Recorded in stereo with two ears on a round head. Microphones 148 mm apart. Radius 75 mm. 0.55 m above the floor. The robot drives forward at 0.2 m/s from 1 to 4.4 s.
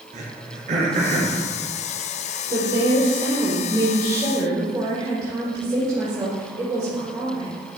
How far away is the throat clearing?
About 3 m.